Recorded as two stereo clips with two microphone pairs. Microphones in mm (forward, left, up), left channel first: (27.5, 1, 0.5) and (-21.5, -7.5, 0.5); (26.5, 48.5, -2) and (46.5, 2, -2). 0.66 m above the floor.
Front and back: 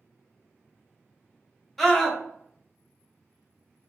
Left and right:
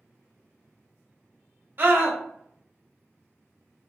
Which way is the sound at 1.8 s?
70° right.